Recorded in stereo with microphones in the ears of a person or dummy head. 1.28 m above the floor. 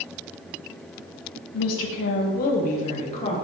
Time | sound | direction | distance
1.5 | a woman speaking | 75° left (ahead or behind) | 0.7 m